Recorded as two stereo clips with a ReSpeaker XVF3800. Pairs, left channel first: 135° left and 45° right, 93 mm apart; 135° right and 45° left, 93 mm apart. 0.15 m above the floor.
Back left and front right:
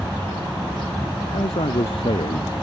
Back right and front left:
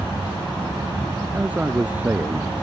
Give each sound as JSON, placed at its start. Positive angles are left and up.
{"t": 1.3, "sound": "a man speaking", "azimuth_deg": 120}